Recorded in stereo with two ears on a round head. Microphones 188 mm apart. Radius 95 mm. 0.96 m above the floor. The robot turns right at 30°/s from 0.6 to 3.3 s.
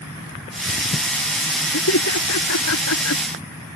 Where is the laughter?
65° left (ahead or behind); by 3.2 s 70° left (ahead or behind).